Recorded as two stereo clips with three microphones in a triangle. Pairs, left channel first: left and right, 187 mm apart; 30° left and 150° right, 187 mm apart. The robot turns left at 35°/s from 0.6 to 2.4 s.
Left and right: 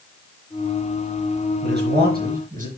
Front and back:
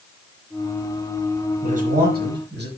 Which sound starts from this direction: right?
A man speaking, at 1.6 s.